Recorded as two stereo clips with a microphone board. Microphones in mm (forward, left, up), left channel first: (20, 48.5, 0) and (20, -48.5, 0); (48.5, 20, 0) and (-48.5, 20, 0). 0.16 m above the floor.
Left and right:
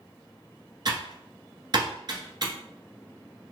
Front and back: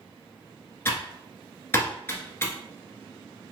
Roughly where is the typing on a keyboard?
Ahead right.